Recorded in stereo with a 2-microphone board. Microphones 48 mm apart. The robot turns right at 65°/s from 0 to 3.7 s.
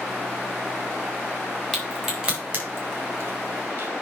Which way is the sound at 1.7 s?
15° left (ahead or behind).